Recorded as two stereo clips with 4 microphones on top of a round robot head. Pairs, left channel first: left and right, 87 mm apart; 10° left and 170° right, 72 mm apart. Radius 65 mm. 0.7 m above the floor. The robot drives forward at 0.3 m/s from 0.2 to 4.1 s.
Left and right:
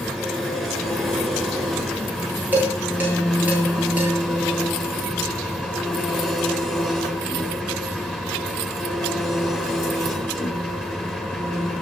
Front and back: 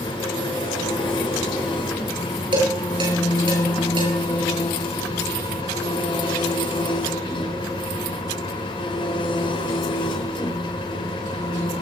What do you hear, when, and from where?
0.0 s an engine running: 5° left, 6 m
2.5 s dishes clattering: 165° right, 8 m